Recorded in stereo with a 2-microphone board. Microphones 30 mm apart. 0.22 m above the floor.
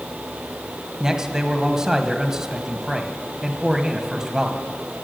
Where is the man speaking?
20° right (ahead or behind), 1.0 m.